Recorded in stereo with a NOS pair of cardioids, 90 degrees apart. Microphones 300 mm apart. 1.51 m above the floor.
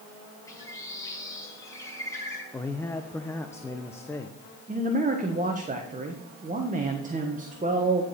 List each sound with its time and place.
0.5 s a bird: 10° left, 4 m
2.5 s a man speaking: 10° left, 0.8 m
4.7 s a man speaking: 25° right, 1.4 m